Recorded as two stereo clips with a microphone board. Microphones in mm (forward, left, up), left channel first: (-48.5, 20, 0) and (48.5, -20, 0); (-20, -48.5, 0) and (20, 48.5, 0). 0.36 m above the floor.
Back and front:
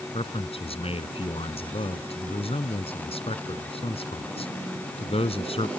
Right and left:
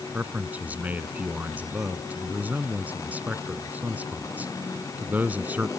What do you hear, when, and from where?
0.1 s a man speaking: 140° left